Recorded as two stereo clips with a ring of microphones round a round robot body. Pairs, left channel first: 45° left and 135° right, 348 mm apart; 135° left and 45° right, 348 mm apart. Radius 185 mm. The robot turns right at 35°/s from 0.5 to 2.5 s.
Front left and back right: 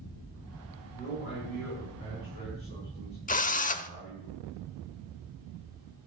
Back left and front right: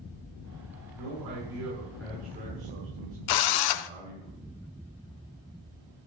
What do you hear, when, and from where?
0.9 s a man speaking: 30° right, 7 m; by 4.3 s 25° left, 7 m
3.3 s a drill: 115° left, 0.7 m